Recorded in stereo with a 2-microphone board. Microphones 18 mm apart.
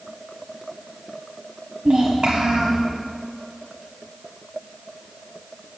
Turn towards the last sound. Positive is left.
turn(degrees=-55)  # may be behind; listen again after turning